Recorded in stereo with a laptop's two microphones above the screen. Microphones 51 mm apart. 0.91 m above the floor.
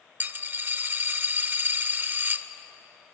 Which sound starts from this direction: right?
A dropped coin, at 0.2 s.